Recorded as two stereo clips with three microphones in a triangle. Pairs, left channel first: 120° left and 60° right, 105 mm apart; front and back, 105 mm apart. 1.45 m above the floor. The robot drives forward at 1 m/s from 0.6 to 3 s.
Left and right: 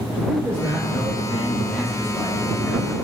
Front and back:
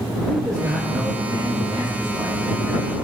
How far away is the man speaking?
About 1.6 m.